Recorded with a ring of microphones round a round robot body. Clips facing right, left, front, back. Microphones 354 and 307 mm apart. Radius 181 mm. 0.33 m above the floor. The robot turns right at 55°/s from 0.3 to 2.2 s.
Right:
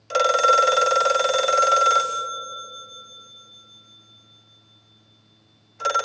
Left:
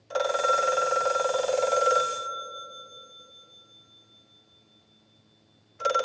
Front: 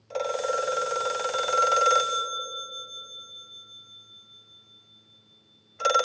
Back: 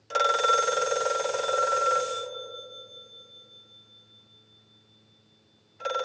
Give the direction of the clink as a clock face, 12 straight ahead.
I don't hear a clink.